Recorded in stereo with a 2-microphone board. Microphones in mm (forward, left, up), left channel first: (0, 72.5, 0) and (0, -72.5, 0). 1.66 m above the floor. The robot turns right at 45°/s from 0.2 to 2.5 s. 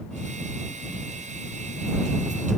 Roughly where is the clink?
I don't hear a clink.